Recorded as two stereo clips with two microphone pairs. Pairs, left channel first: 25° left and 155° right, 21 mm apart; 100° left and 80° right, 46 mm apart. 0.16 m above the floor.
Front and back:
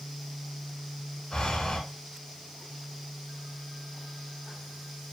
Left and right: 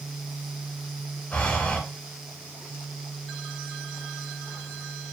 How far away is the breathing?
About 0.7 m.